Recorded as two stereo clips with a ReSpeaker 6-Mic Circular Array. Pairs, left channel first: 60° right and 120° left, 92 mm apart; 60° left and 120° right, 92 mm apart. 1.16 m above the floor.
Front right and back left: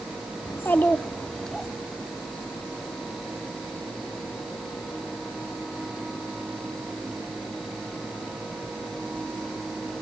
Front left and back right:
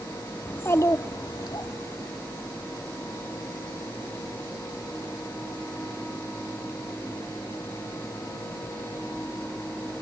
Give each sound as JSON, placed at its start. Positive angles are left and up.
{"t": 0.5, "sound": "a child speaking", "azimuth_deg": -5, "distance_m": 0.9}